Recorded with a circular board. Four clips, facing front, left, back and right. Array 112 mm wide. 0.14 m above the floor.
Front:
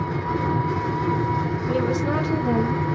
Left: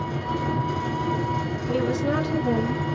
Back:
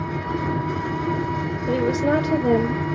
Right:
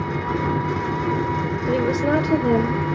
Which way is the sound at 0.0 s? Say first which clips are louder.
Right 3 dB, front 1 dB; 85° right.